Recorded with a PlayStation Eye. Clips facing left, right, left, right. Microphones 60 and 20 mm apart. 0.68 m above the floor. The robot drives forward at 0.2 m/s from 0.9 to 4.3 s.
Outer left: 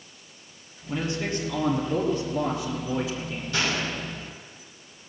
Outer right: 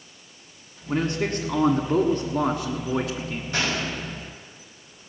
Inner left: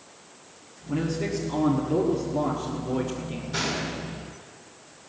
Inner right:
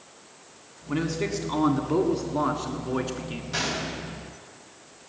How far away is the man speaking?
About 1.8 m.